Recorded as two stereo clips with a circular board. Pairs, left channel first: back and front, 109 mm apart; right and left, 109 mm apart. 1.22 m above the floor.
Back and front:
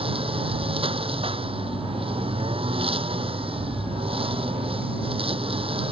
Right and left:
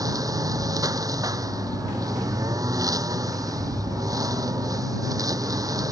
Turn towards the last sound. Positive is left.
turn(degrees=30)